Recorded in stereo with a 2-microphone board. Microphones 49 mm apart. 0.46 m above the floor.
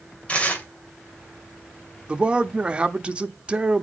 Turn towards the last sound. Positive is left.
turn(degrees=-25)  # may be behind; listen again after turning